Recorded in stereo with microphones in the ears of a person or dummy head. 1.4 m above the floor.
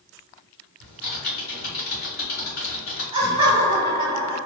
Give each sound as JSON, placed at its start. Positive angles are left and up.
{"t": 0.8, "sound": "typing on a keyboard", "side_deg": 45, "distance_m": 1.4}
{"t": 3.1, "sound": "laughter", "side_deg": -25, "distance_m": 0.9}